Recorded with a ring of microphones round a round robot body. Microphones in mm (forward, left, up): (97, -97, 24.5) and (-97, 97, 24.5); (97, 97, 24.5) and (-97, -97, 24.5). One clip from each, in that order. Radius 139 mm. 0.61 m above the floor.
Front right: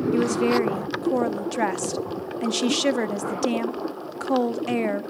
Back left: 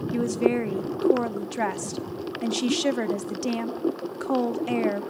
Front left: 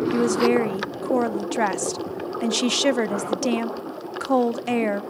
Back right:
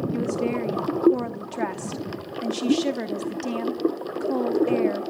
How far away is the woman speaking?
About 0.8 m.